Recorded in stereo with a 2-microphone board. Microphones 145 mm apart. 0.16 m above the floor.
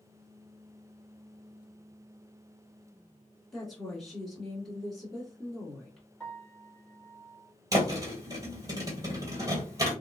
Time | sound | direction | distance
3.5 | a woman speaking | centre (ahead or behind) | 1.5 m
6.2 | a piano | 5° left (ahead or behind) | 1.1 m
7.7 | a thud | 25° right (ahead or behind) | 1.4 m